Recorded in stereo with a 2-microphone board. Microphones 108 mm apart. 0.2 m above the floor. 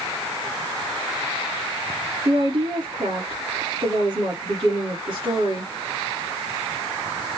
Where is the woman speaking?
50° right (ahead or behind), 3 m.